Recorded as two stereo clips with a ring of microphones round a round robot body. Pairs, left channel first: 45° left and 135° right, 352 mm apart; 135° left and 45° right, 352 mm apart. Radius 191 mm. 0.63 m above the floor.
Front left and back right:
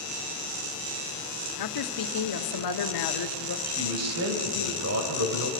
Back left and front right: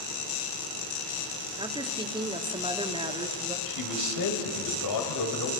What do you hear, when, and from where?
1.6 s a woman speaking: 30° left, 1.5 m
3.7 s a man speaking: 175° left, 3.5 m